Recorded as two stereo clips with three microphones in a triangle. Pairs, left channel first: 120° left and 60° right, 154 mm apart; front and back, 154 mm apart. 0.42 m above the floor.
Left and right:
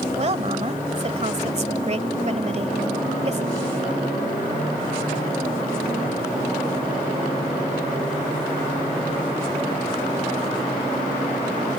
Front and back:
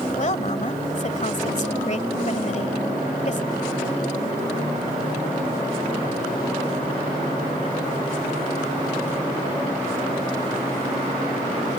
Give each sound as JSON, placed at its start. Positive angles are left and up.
{"t": 0.2, "sound": "a woman speaking", "azimuth_deg": -25}